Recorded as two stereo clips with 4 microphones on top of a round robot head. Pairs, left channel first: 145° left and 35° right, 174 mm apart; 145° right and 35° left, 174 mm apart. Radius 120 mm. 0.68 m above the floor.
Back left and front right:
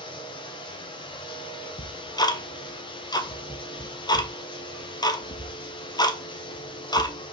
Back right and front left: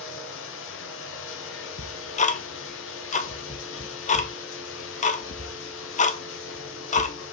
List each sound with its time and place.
0.0 s running water: 150° right, 0.7 m
1.8 s ticking: 160° right, 0.9 m